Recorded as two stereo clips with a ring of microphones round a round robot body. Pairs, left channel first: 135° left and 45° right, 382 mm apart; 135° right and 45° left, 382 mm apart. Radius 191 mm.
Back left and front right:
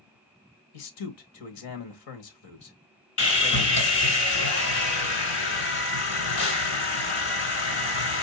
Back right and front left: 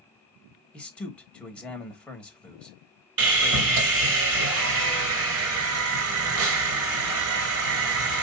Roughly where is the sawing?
Left.